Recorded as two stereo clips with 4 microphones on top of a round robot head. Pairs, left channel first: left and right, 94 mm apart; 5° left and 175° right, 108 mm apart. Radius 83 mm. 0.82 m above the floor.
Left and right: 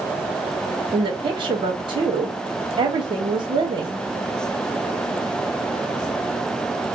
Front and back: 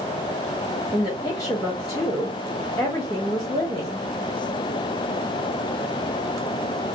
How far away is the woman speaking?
About 0.9 m.